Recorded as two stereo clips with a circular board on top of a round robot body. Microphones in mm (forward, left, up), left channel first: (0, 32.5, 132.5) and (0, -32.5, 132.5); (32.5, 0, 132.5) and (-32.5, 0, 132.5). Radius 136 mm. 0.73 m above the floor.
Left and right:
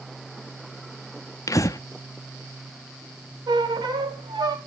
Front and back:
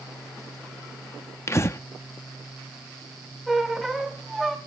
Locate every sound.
1.5 s breathing: 50° left, 0.7 m
3.5 s a squeak: 90° right, 1.4 m